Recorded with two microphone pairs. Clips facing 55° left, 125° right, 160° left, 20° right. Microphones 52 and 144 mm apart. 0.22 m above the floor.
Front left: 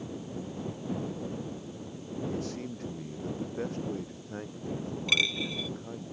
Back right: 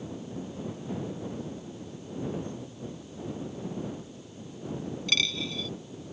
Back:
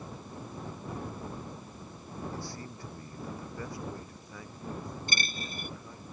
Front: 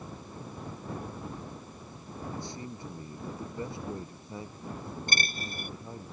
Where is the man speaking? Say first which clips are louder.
Front left 1 dB, front 1 dB; 50° left; by 6.1 s 40° left.